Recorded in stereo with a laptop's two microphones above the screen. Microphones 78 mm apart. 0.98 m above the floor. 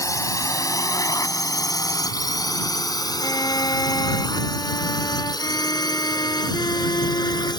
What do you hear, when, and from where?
0.0 s a drone: 45° left (ahead or behind); by 7.6 s 65° left (ahead or behind)
3.2 s a violin: 60° left (ahead or behind)